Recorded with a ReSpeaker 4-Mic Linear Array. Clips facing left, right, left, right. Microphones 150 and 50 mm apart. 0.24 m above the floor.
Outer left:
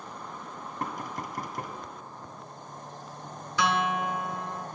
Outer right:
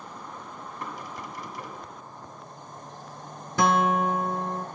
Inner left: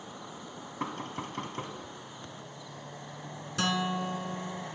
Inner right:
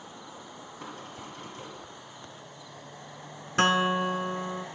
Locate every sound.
0.8 s knocking: 50° left (ahead or behind), 1.8 m
3.6 s a guitar: 45° right (ahead or behind), 0.8 m